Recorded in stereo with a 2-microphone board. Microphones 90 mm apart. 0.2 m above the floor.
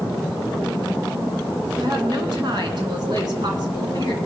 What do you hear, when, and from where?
1.8 s a woman speaking: 55° right (ahead or behind), 2.5 m